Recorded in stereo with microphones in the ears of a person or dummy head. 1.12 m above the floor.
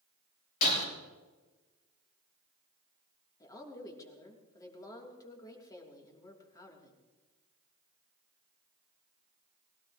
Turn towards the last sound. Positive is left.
turn(degrees=25)  # may be behind; listen again after turning